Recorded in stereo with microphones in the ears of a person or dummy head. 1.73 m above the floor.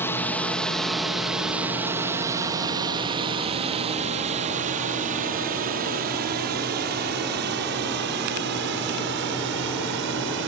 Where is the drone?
10° left (ahead or behind); by 10.5 s 65° right (ahead or behind).